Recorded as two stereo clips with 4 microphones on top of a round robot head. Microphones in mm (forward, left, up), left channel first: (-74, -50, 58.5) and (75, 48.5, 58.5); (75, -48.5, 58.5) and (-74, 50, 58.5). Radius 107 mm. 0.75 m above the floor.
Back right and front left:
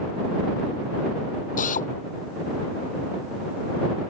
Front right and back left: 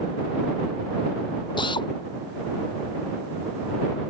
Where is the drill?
100° right.